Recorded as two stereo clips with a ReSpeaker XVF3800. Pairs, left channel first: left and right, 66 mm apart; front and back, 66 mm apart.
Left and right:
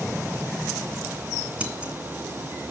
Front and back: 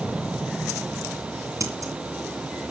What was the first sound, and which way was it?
Scissors, 160° right.